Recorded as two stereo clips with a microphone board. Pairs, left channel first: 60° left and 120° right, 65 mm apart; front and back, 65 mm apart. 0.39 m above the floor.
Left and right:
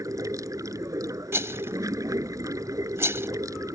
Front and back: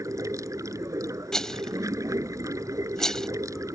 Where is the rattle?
80° right.